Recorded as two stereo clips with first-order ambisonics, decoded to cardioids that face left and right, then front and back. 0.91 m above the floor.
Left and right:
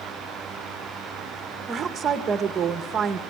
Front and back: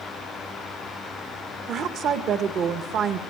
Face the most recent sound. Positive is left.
turn(degrees=-145)